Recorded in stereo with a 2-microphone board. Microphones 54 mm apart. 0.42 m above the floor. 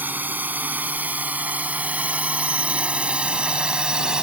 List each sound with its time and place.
0.0 s a drone: 35° right (ahead or behind); by 4.2 s 15° right (ahead or behind)